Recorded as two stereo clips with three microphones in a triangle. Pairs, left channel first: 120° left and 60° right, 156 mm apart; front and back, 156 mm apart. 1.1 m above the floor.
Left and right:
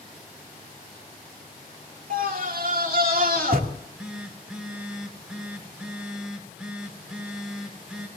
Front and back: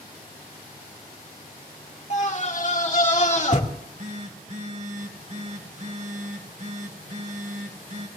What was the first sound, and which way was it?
A scream, 40° right.